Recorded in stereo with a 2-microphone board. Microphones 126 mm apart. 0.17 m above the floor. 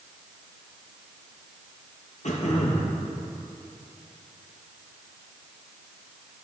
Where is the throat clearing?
75° left (ahead or behind), 1.4 m.